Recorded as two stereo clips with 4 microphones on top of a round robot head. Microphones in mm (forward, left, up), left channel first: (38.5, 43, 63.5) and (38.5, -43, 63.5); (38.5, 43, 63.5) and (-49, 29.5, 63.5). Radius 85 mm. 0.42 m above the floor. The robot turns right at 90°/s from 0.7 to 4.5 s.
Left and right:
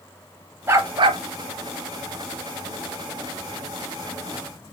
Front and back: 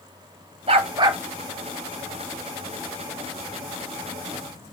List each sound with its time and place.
0.7 s a dog barking: 155° right, 0.9 m; by 1.2 s 110° right, 0.9 m